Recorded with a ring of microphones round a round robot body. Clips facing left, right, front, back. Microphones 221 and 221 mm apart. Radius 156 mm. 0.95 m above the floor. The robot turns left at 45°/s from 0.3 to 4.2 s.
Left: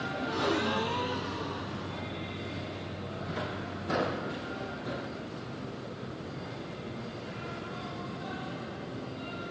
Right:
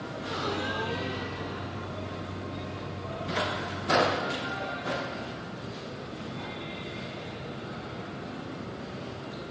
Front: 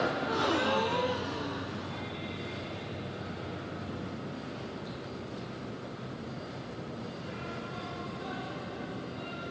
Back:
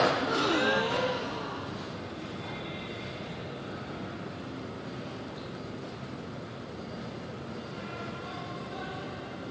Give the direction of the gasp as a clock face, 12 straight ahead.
8 o'clock.